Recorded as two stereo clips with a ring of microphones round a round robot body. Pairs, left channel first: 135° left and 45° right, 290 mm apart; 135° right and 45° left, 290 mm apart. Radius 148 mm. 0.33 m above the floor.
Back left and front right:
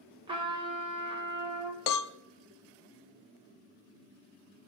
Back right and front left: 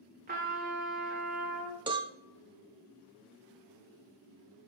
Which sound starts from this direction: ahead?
A trumpet, at 0.3 s.